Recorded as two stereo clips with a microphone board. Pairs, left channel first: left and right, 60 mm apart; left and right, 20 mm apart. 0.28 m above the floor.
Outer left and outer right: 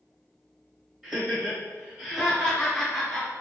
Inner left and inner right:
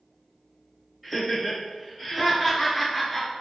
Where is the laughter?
5° right (ahead or behind), 1.6 m; by 3.3 s 5° left (ahead or behind), 1.6 m.